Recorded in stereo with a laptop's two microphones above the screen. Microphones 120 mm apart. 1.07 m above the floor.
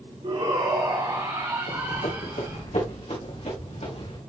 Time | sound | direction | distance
0.2 | a shout | 45° right (ahead or behind) | 1.9 m
1.7 | running footsteps | 60° left (ahead or behind) | 2.5 m